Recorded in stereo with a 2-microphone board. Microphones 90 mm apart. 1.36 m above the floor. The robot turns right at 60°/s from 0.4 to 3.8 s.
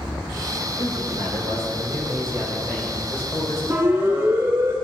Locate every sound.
0.8 s a man speaking: 120° right, 6 m; by 3.6 s 50° left, 6 m
3.7 s a siren: 25° right (ahead or behind), 3 m; by 4.8 s 30° right (ahead or behind), 2.5 m